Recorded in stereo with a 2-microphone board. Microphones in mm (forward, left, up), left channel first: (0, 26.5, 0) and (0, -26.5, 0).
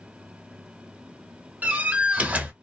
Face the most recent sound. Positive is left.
turn(degrees=-30)  # may be behind; listen again after turning